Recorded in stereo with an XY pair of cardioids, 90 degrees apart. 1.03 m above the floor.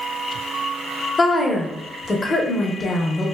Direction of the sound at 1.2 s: 35° left.